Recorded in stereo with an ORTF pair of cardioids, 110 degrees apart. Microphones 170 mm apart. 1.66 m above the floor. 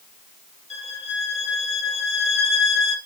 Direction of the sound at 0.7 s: 40° left.